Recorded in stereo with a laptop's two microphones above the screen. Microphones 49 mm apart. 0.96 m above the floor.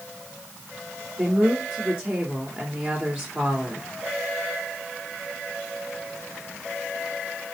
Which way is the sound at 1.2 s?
30° right (ahead or behind).